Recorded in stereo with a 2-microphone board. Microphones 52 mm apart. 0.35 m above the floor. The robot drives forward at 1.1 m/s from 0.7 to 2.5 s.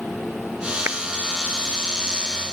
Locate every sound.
0.9 s a clap: 45° right (ahead or behind)